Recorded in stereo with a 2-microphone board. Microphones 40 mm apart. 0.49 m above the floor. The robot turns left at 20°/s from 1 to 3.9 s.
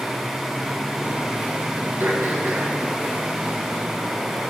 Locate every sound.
2.0 s throat clearing: 80° right, 3 m; by 2.8 s 75° right (ahead or behind), 3 m